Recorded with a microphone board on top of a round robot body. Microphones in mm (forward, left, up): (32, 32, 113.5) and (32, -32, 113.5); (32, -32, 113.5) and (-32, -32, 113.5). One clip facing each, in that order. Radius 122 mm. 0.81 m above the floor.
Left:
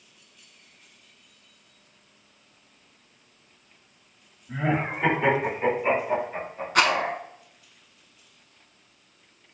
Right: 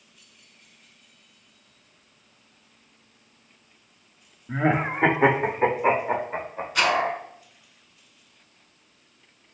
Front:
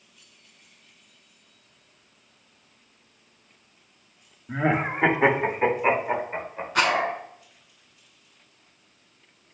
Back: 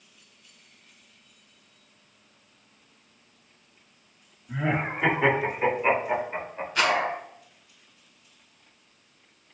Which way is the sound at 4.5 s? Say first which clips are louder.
Right 3 dB, front 4 dB; 45° right.